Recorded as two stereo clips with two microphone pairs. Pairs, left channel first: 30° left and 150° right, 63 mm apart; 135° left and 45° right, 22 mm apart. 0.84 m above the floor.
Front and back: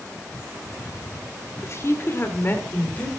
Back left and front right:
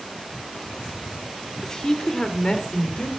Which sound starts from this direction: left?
A woman speaking, at 1.6 s.